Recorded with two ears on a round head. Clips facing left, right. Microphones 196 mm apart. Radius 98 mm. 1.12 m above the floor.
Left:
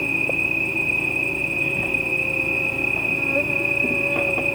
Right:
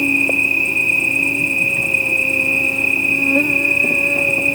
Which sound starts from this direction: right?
An insect, at 0.0 s.